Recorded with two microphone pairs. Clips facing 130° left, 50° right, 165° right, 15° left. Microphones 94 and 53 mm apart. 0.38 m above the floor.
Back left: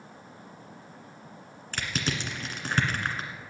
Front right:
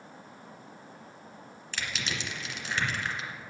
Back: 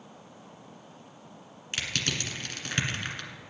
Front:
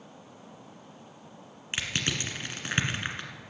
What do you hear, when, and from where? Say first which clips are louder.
1.7 s crushing: back left 4 dB, front 1 dB; 85° left, 1.8 m